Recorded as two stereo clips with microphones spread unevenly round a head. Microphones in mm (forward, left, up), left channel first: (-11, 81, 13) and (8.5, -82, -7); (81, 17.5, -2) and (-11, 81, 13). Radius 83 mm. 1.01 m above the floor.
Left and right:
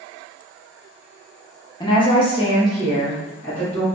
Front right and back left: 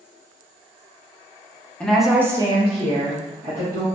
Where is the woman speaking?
35° left, 0.7 m; by 3.9 s 175° right, 1.5 m.